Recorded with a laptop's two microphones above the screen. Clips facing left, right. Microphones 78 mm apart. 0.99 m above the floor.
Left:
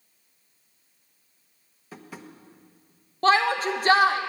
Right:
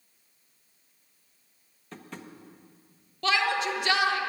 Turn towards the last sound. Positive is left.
turn(degrees=40)  # may be behind; listen again after turning